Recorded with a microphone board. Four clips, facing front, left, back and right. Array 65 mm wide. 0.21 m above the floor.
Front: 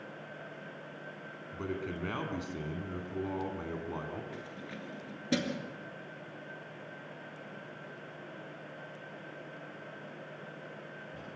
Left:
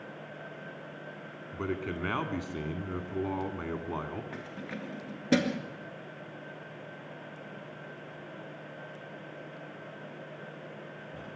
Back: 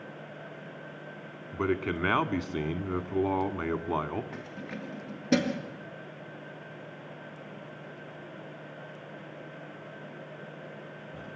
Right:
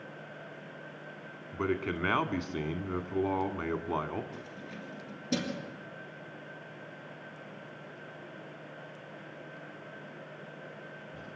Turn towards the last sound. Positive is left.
turn(degrees=125)